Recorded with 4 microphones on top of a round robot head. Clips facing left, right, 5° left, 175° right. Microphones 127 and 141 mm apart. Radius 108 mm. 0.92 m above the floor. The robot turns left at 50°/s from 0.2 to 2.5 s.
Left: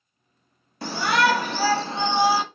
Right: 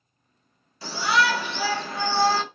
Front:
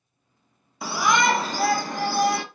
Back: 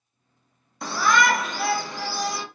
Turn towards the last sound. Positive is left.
turn(degrees=5)